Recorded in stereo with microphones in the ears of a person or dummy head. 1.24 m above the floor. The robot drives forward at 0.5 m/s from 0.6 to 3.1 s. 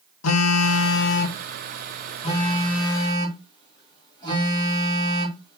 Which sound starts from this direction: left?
A phone buzzing, at 0.2 s.